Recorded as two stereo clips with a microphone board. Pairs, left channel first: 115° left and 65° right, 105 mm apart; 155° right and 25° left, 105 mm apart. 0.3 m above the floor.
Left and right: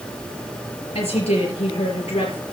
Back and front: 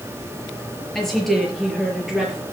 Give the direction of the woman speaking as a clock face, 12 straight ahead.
8 o'clock.